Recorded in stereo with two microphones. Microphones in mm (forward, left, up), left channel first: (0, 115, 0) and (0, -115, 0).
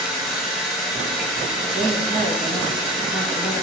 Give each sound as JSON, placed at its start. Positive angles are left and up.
{"t": 0.0, "sound": "running water", "side_deg": -5, "distance_m": 3.5}
{"t": 1.7, "sound": "a woman speaking", "side_deg": -20, "distance_m": 3.5}